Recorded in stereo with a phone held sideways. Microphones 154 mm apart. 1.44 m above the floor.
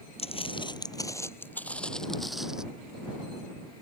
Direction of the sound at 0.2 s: 40° left (ahead or behind).